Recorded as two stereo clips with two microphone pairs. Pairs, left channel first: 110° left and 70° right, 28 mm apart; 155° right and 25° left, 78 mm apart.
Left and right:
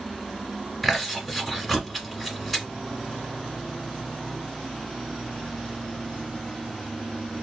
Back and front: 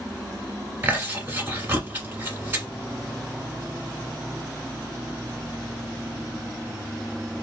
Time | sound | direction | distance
0.8 | chewing | 15° left | 1.4 m